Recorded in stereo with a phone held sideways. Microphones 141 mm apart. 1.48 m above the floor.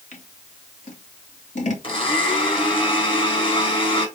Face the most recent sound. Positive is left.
turn(degrees=40)  # may be behind; listen again after turning